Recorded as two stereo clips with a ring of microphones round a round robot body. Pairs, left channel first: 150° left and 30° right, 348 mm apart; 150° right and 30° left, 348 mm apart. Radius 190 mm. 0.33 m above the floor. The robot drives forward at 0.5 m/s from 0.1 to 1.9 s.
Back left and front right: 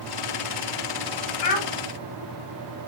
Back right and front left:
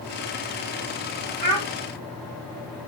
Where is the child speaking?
135° left, 1.9 m.